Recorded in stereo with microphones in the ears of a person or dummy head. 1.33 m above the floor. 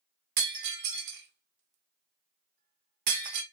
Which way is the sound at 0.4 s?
60° right (ahead or behind).